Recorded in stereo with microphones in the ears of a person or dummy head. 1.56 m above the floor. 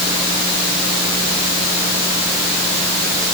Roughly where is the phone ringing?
I don't hear a phone ringing.